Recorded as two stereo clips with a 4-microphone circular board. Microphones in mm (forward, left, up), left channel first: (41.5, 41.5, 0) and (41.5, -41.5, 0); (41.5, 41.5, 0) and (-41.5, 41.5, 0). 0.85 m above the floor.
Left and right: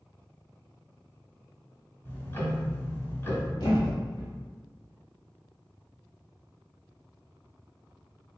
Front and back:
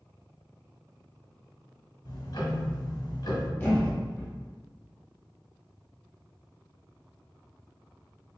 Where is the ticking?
30° left, 0.9 m.